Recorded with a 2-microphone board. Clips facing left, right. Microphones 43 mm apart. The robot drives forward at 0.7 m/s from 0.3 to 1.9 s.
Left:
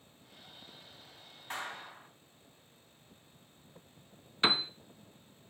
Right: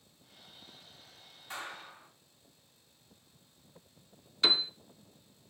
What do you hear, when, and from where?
1.5 s a clap: 55° left (ahead or behind), 3 m
4.4 s a piano: 25° left (ahead or behind), 0.6 m